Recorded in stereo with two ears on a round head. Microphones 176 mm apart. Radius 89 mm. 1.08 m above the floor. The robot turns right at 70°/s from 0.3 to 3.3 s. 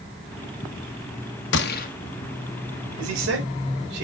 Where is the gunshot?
65° left (ahead or behind), 1.0 m; by 1.9 s 40° left (ahead or behind), 1.0 m.